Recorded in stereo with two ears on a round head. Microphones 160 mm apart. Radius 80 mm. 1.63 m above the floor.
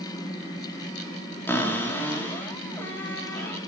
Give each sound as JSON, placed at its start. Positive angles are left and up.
{"t": 1.5, "sound": "a cupboard door", "side_deg": 15, "distance_m": 4.5}